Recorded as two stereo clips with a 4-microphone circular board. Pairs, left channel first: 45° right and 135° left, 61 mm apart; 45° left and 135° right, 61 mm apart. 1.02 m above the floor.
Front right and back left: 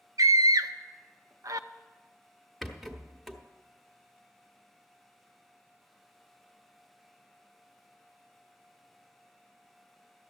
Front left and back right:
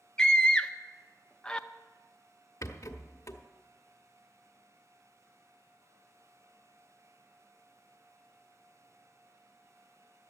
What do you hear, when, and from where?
0.2 s a scream: 120° left, 0.6 m
2.6 s a rattle: 45° left, 1.1 m